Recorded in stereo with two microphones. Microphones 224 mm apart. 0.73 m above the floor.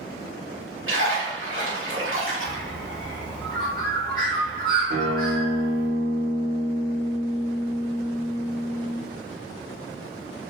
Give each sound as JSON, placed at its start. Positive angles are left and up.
{"t": 0.9, "sound": "a splash", "side_deg": -60, "distance_m": 1.2}
{"t": 2.4, "sound": "a bird", "side_deg": 20, "distance_m": 0.9}
{"t": 4.9, "sound": "a guitar", "side_deg": -35, "distance_m": 0.7}